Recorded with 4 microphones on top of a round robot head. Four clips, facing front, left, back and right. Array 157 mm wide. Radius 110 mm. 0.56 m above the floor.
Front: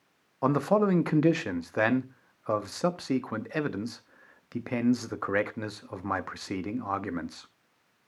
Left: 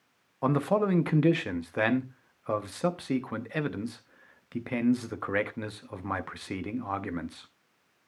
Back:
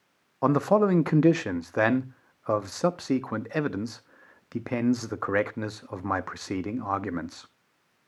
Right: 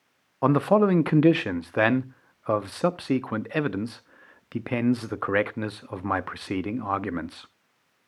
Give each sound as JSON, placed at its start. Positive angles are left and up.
{"t": 0.4, "sound": "a man speaking", "azimuth_deg": -120, "distance_m": 0.8}